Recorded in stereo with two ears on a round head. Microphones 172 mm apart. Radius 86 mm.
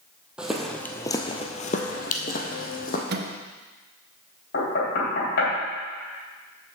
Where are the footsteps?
5° right (ahead or behind), 1.3 m; by 3.0 s 45° left (ahead or behind), 1.9 m.